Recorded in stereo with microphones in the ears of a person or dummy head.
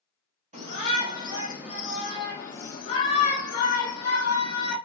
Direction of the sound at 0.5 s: 40° right (ahead or behind).